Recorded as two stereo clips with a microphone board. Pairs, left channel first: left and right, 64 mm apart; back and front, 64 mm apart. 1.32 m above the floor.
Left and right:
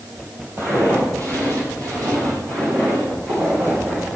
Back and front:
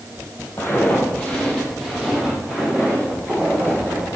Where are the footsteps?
130° right, 2.5 m; by 4.2 s 55° right, 5.5 m.